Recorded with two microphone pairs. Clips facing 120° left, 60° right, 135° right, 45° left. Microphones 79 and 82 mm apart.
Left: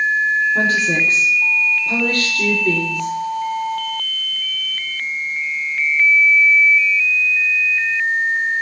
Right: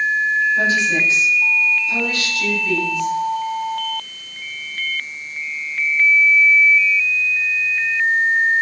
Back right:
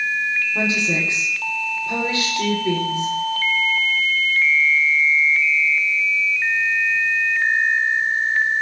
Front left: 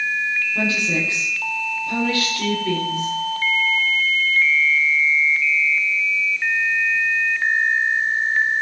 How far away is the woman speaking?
About 7.5 m.